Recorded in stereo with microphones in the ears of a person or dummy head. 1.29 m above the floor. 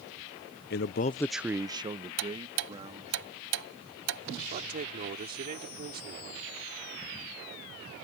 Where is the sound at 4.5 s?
45° right (ahead or behind).